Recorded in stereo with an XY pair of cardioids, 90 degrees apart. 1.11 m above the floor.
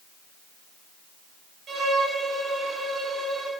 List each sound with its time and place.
1.7 s a violin: 60° right, 3 m